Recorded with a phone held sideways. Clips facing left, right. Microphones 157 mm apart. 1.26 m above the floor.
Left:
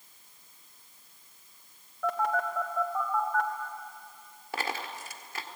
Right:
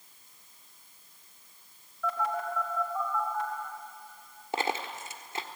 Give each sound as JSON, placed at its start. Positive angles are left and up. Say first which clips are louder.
{"t": 2.0, "sound": "a phone buzzing", "louder": "left 3 dB", "side_deg": 70, "distance_m": 2.5}
{"t": 4.5, "sound": "a dropped coin", "louder": "right 3 dB", "side_deg": -25, "distance_m": 1.5}